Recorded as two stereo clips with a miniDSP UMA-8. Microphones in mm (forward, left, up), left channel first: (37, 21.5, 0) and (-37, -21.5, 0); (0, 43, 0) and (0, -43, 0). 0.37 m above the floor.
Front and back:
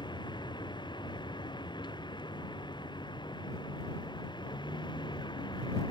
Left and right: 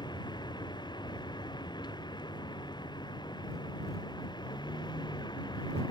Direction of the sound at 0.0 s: 60° left.